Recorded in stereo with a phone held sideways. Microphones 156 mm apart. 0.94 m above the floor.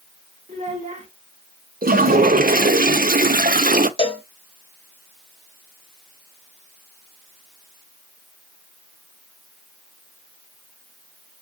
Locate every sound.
0.5 s a child speaking: 45° right (ahead or behind), 1.4 m
1.8 s a toilet flushing: 65° right (ahead or behind), 0.5 m
4.0 s a cowbell: 35° left (ahead or behind), 0.7 m